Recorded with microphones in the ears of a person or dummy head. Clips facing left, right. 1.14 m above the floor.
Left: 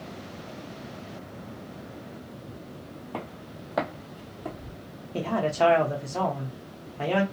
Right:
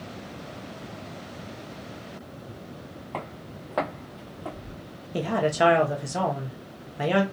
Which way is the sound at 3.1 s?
10° left (ahead or behind).